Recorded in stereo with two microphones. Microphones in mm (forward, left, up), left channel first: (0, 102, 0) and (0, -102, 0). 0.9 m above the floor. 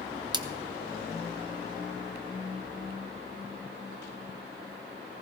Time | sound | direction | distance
0.3 | a splash | 20° right (ahead or behind) | 0.7 m